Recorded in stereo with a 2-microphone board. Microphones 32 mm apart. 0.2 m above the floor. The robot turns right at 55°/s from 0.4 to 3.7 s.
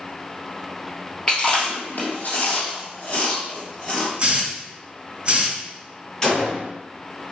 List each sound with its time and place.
1.3 s chewing: 25° left (ahead or behind), 1.8 m
4.2 s a hiss: 25° right (ahead or behind), 1.6 m
6.2 s a gunshot: 20° left (ahead or behind), 1.5 m